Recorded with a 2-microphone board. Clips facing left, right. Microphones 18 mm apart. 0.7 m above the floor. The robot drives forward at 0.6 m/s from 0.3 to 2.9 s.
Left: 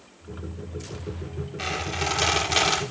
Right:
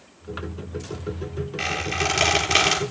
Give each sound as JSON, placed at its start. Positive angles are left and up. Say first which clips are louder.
{"t": 1.6, "sound": "a squeak", "louder": "right 3 dB", "side_deg": -80, "distance_m": 7.0}